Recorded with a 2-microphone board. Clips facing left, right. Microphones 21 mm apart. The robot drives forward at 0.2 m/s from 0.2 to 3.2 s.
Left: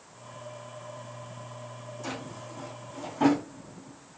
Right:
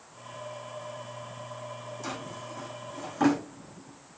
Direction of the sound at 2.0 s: 30° right (ahead or behind).